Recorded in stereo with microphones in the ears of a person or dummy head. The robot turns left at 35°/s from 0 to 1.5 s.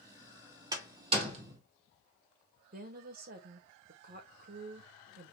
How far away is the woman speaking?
About 1.3 m.